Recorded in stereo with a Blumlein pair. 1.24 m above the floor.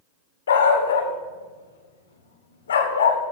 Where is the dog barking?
65° left, 1.9 m.